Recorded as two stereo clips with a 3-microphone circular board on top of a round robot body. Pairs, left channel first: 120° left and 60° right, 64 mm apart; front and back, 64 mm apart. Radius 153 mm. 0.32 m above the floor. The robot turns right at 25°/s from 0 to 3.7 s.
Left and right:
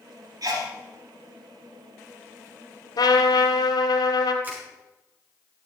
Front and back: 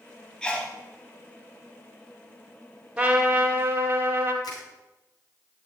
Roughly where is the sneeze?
Right.